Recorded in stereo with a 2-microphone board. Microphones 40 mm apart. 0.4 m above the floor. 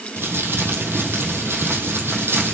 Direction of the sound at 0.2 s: 85° right.